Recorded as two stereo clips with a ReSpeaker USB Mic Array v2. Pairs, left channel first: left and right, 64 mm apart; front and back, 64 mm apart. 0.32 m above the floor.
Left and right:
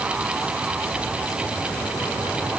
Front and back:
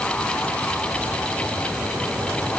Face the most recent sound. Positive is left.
No sound to turn to.